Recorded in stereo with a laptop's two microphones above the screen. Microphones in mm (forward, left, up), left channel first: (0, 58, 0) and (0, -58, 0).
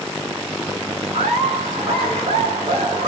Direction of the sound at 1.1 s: 80° right.